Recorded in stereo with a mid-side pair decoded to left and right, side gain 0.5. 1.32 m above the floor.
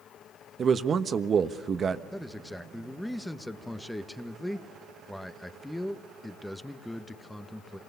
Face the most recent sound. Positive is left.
turn(degrees=5)